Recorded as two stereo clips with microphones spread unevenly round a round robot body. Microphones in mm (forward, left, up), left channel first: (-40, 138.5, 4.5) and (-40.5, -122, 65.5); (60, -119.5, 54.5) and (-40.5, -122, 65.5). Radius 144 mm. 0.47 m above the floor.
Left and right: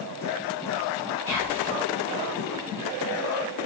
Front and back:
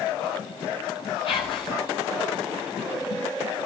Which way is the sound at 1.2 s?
5° right.